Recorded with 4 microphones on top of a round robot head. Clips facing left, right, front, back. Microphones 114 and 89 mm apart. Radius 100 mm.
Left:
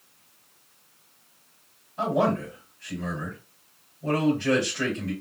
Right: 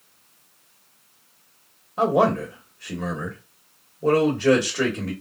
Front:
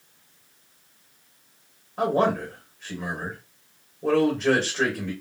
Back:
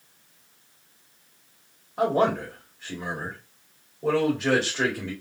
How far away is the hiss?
I don't hear a hiss.